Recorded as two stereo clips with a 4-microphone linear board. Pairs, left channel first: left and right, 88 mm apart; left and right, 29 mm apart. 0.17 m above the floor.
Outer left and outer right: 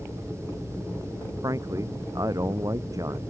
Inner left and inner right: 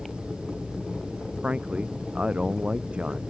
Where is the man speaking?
40° right (ahead or behind).